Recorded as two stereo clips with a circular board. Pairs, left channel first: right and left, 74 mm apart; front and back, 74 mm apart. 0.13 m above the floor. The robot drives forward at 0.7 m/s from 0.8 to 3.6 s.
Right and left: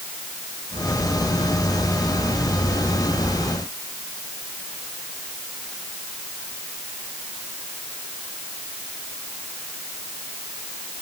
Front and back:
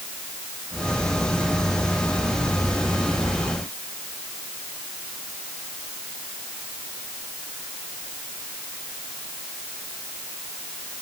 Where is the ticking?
I don't hear ticking.